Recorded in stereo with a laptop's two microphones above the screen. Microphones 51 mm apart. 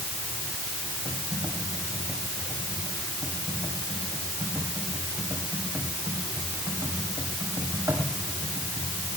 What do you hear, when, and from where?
1.1 s typing on a keyboard: 85° right, 7 m